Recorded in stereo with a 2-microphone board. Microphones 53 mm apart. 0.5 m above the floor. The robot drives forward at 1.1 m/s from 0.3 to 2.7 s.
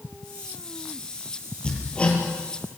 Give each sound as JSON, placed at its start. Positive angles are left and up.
{"t": 1.6, "sound": "hammering", "side_deg": 20, "distance_m": 6.0}